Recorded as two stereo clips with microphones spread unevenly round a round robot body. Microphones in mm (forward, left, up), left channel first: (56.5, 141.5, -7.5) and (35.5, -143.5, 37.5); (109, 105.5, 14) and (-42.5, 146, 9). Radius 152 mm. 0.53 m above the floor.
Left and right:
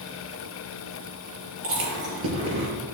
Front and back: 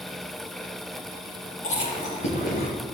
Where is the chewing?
50° right, 5 m.